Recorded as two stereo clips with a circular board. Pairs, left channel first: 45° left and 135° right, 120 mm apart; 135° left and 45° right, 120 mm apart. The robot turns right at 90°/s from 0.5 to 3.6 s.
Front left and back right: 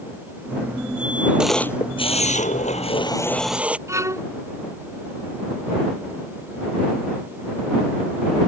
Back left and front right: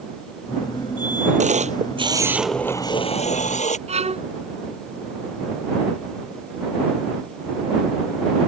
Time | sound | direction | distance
1.4 | a camera shutter | 55° right | ?
3.9 | a violin | 70° right | ?